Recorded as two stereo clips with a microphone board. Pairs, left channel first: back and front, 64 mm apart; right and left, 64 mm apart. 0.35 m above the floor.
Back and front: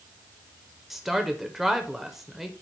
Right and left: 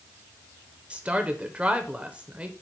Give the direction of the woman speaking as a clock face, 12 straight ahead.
9 o'clock.